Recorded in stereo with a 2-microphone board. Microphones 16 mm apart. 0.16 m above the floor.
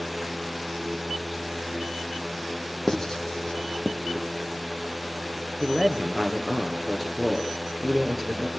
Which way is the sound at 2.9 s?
30° left (ahead or behind).